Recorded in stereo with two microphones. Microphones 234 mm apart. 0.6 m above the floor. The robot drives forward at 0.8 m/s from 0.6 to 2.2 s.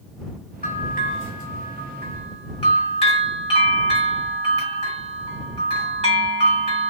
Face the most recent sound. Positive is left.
turn(degrees=25)  # may be behind; listen again after turning